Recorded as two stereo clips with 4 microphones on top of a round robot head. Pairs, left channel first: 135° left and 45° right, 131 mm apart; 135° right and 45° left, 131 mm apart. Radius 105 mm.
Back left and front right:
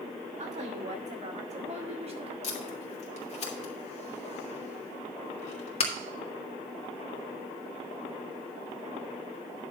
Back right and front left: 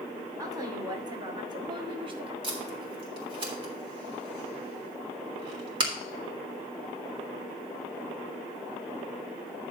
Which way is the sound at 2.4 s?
100° left.